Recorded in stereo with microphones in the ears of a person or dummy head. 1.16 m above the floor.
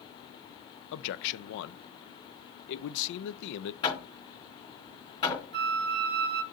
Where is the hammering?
25° left (ahead or behind), 4.5 m.